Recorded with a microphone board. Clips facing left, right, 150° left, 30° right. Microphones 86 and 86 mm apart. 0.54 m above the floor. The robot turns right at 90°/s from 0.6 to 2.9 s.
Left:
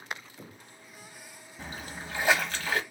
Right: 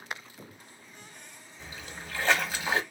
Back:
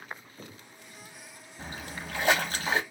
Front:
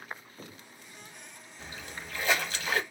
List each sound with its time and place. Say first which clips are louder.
1.6 s a splash: left 3 dB, back 4 dB; 105° left, 0.7 m; by 2.8 s 145° right, 0.7 m